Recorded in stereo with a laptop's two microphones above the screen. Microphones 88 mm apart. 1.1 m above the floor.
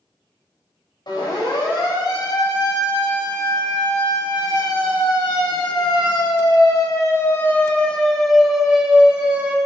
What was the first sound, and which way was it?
A siren, 65° left (ahead or behind).